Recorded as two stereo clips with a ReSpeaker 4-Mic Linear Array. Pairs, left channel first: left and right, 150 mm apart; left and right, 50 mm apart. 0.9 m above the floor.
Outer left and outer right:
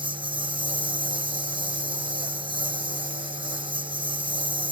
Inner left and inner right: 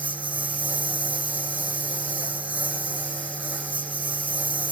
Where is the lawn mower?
30° right (ahead or behind).